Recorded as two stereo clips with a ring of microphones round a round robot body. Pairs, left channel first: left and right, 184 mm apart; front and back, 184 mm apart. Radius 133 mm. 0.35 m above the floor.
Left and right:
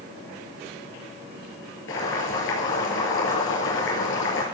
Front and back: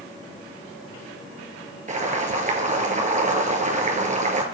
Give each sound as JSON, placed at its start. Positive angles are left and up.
{"t": 1.9, "sound": "boiling", "azimuth_deg": 130, "distance_m": 2.5}